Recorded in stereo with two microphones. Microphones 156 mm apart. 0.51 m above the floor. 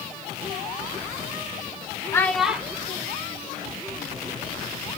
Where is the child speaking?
20° left (ahead or behind), 0.6 m; by 4.4 s 35° right (ahead or behind), 2.5 m.